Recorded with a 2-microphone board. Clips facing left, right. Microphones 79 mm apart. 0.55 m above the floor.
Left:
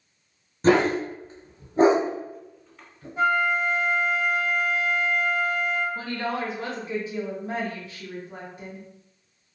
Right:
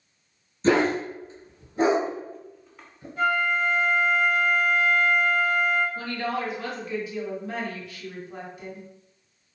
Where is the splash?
No splash in this recording.